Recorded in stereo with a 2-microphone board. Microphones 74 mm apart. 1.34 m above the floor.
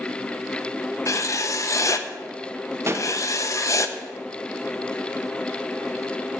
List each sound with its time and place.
1.1 s writing: 45° left (ahead or behind), 0.6 m
2.9 s a pop: 35° right (ahead or behind), 0.6 m